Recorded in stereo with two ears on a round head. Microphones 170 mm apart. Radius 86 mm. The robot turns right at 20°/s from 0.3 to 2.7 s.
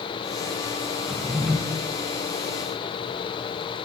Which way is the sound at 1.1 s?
Centre (ahead or behind).